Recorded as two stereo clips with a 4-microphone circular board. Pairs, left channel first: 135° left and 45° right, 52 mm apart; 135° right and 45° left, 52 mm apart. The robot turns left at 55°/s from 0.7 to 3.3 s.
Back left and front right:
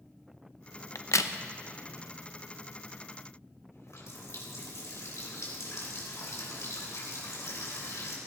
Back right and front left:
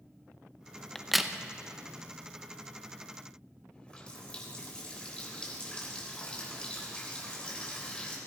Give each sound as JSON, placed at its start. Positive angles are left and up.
{"t": 0.9, "sound": "a crack", "azimuth_deg": 145, "distance_m": 0.7}
{"t": 3.7, "sound": "a running tap", "azimuth_deg": 155, "distance_m": 3.5}